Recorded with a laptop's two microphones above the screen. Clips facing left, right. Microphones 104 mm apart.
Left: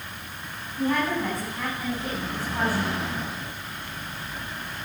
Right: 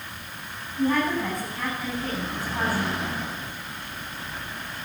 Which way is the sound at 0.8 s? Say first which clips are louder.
Right 1 dB; 5° left (ahead or behind).